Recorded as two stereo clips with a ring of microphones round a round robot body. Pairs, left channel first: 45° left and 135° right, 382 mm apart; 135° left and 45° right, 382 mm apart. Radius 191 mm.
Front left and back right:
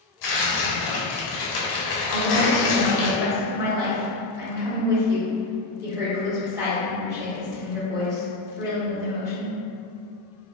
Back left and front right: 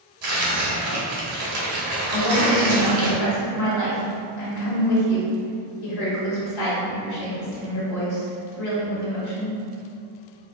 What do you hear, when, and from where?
0.2 s tearing paper: 5° left, 1.1 m
2.1 s a woman speaking: 145° left, 2.0 m